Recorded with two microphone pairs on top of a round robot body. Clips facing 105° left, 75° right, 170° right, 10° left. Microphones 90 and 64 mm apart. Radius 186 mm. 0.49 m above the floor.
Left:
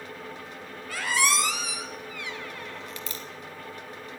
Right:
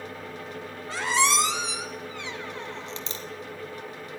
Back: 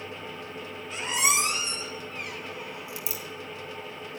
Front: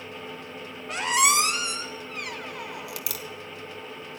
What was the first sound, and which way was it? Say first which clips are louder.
A squeak: right 2 dB, front 5 dB; 10° right.